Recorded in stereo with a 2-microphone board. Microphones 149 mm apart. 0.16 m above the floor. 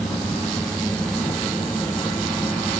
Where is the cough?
I don't hear a cough.